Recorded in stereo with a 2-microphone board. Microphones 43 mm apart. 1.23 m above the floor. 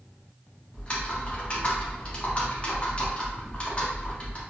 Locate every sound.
0.7 s typing on a keyboard: 25° left (ahead or behind), 0.7 m